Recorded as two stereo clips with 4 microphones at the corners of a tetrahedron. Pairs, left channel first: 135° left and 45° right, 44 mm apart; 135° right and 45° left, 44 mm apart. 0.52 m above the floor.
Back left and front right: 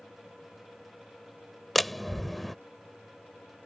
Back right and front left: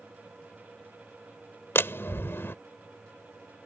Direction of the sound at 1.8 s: 140° right.